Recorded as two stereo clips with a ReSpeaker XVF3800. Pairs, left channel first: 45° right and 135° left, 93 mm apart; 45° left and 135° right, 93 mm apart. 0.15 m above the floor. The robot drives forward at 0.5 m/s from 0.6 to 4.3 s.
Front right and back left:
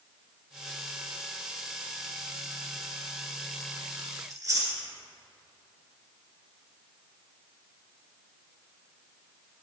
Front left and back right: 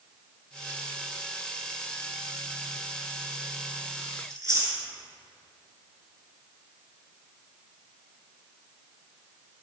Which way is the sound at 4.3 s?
175° left.